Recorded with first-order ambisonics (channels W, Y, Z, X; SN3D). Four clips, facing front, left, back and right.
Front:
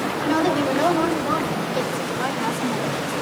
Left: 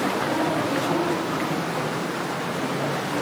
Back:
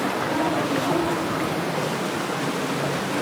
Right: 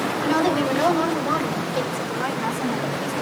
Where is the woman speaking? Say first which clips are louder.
Right 3 dB, front 7 dB; 55° right, 6 m; by 3.1 s 35° right, 9 m.